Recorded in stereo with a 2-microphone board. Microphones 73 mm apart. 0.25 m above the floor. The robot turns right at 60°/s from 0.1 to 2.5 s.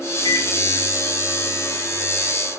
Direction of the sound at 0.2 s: 65° left (ahead or behind).